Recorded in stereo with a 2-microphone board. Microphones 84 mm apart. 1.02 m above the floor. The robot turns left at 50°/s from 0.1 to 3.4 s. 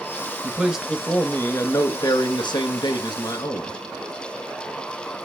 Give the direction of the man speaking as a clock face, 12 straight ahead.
5 o'clock.